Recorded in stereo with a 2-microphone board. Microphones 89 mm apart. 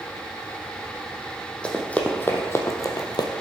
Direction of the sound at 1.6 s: 10° left (ahead or behind).